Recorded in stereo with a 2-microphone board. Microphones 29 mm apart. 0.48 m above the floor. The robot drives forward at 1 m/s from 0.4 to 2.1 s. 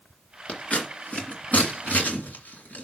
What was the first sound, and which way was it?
Scissors, 50° left (ahead or behind).